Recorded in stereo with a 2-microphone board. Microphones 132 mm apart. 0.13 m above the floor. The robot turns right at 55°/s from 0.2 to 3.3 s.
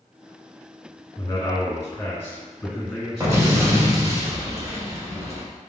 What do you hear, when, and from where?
1.2 s a man speaking: 25° left (ahead or behind), 1.7 m; by 4.2 s 5° right (ahead or behind), 1.7 m
3.2 s an explosion: 25° right (ahead or behind), 0.9 m